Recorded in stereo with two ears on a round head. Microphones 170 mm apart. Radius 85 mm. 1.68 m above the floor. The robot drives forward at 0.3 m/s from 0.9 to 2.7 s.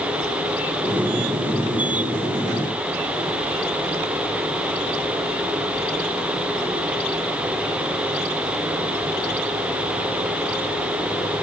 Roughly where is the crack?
No crack in this recording.